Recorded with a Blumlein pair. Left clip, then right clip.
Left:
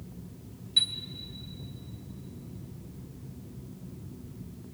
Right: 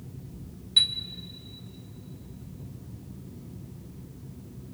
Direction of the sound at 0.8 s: 15° right.